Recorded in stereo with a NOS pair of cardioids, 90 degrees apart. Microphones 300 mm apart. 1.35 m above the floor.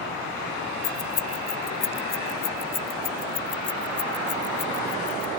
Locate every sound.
0.8 s keys jangling: 65° left; by 5.3 s 50° left